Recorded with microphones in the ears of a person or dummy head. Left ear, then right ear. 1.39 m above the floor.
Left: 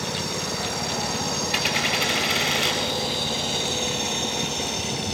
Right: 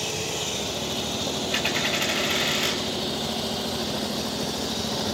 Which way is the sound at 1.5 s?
5° left (ahead or behind).